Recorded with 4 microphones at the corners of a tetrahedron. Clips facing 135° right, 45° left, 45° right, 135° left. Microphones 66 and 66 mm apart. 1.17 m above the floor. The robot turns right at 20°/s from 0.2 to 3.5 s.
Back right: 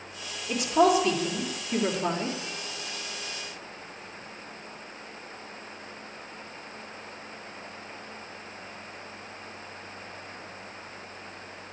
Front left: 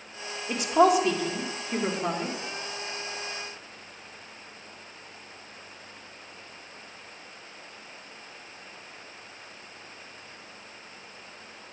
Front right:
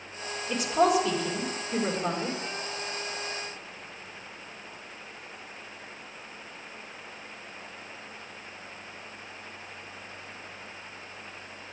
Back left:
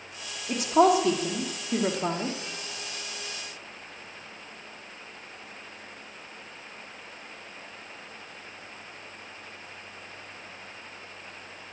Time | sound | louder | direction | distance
0.5 | a woman speaking | front left 1 dB, back left 3 dB | 95° left | 1.6 m